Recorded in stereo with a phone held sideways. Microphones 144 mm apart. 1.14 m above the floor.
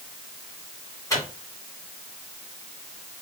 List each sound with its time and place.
1.1 s a microwave: 25° left (ahead or behind), 1.8 m